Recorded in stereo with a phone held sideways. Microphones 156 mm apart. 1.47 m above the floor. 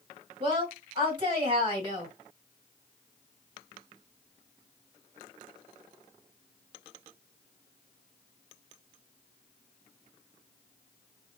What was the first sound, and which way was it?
A woman speaking, 35° right (ahead or behind).